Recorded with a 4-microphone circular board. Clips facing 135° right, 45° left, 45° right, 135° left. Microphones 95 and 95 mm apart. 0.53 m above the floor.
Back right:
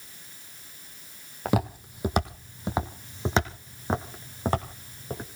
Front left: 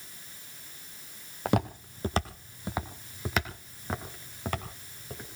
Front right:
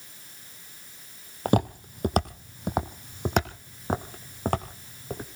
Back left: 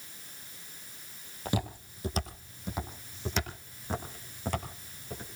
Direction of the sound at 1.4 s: 45° right.